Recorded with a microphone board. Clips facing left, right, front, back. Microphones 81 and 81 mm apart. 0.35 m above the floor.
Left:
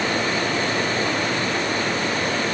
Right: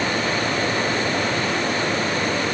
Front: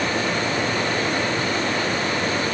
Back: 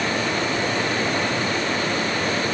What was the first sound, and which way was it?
Only background noise.